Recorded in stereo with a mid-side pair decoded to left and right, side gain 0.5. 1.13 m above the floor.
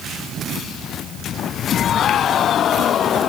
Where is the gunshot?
I don't hear a gunshot.